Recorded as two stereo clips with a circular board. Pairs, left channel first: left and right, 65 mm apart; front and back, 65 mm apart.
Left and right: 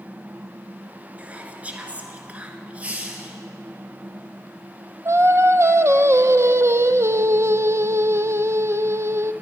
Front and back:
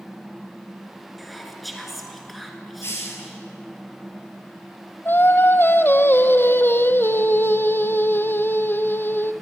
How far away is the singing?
About 0.6 m.